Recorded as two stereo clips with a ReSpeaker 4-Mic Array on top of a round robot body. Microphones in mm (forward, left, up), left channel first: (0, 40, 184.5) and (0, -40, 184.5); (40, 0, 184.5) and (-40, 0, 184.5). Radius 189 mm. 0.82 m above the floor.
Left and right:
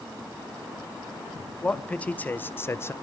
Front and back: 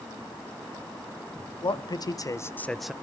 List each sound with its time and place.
1.6 s a man speaking: 15° left, 1.6 m; by 2.9 s 110° left, 0.9 m